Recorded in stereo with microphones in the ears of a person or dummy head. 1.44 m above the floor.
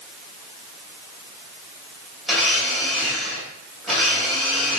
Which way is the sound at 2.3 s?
Centre (ahead or behind).